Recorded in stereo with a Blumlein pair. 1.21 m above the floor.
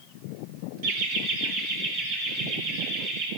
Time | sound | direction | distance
0.8 | laughter | 50° right | 1.1 m